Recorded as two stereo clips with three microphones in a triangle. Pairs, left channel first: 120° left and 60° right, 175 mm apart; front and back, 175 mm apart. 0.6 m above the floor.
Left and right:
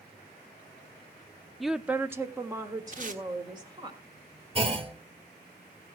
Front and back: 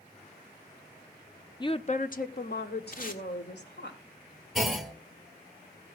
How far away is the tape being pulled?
About 1.5 m.